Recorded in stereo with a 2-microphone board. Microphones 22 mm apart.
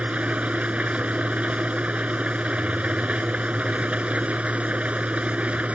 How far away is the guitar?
No guitar in this recording.